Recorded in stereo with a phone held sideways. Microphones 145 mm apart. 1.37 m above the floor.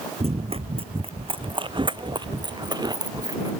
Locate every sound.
0.2 s running footsteps: 45° right (ahead or behind); by 3.5 s 25° right (ahead or behind)